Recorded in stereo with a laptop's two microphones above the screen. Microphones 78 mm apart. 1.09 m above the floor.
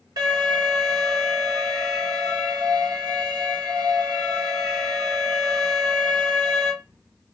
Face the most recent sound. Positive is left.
turn(degrees=-60)  # may be behind; listen again after turning